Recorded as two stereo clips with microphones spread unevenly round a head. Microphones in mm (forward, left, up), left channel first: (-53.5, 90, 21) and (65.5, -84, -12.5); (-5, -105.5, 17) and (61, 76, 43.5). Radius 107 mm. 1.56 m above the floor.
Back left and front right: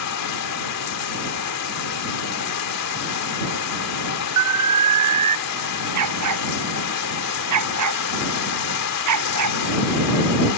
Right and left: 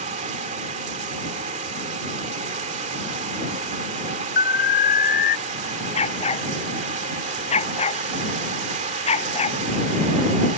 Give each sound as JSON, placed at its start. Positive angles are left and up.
{"t": 0.0, "sound": "running water", "azimuth_deg": 130}
{"t": 4.4, "sound": "an alarm", "azimuth_deg": -65}
{"t": 6.0, "sound": "a dog barking", "azimuth_deg": -50}